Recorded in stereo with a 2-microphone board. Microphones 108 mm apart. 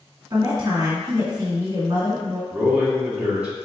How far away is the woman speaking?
About 1.3 m.